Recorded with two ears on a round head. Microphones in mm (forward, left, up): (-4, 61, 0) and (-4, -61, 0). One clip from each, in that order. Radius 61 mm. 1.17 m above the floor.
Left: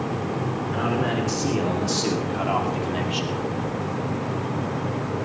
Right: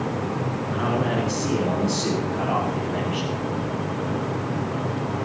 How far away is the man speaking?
About 3.5 m.